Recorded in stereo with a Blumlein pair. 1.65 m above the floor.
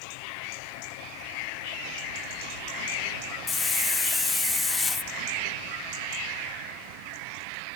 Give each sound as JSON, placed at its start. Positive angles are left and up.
{"t": 3.5, "sound": "a hiss", "azimuth_deg": 15, "distance_m": 0.9}